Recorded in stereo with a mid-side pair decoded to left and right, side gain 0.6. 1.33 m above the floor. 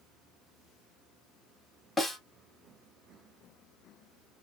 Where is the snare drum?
10° left, 1.5 m.